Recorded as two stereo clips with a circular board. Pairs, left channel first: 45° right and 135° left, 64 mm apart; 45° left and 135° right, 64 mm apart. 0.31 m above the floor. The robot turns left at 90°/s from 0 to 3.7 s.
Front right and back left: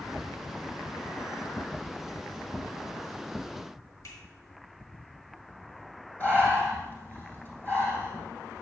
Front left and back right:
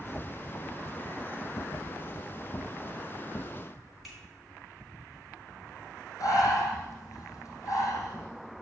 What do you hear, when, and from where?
4.0 s a finger snap: 50° right, 3 m
6.2 s breathing: 15° left, 3 m